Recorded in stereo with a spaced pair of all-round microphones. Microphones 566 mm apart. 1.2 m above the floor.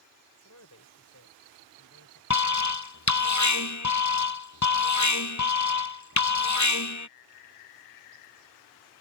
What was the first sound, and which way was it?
A man speaking, 30° left (ahead or behind).